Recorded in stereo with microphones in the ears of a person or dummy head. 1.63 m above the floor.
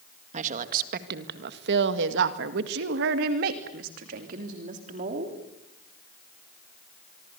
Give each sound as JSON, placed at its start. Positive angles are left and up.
{"t": 0.3, "sound": "a woman speaking", "side_deg": -50, "distance_m": 2.0}